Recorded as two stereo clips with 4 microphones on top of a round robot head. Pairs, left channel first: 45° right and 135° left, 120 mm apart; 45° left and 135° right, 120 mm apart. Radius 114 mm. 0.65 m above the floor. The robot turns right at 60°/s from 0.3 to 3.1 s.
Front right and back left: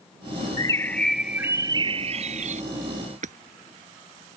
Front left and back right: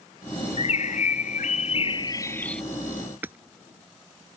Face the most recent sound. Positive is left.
turn(degrees=150)